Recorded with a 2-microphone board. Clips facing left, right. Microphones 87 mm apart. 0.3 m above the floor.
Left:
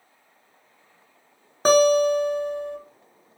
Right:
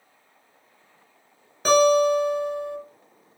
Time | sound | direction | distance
1.6 | a guitar | 40° left (ahead or behind) | 0.7 m